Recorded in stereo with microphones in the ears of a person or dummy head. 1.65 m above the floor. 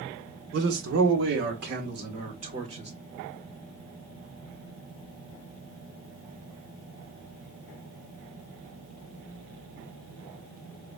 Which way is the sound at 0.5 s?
75° right (ahead or behind).